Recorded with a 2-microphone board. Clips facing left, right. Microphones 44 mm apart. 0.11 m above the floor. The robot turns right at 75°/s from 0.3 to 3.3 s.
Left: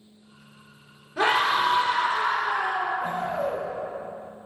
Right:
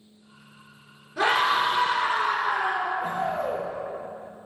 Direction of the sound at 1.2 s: 170° left.